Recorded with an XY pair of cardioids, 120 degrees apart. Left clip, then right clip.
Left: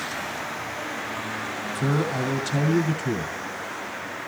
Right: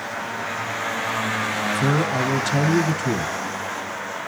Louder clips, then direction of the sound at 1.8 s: Right 2 dB; 20° right.